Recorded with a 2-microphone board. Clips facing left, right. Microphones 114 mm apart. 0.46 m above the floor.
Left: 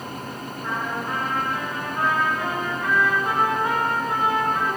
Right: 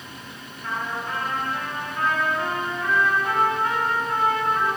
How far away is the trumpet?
About 5 m.